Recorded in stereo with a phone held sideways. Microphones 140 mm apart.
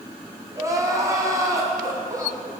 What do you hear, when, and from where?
0.5 s crying: 20° right (ahead or behind), 2.5 m